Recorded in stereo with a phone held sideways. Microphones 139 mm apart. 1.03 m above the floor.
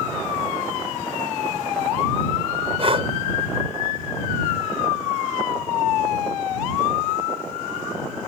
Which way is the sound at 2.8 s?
45° right (ahead or behind).